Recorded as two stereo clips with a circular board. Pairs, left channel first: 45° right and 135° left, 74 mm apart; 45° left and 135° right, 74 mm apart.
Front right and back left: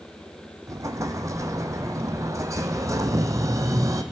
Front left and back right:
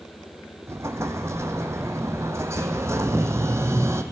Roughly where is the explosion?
Behind.